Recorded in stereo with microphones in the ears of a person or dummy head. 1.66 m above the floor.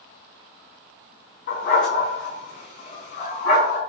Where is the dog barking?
50° left (ahead or behind), 5.5 m.